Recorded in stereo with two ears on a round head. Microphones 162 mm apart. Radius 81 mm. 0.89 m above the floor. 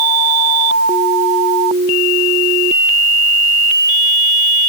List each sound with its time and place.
Only background noise.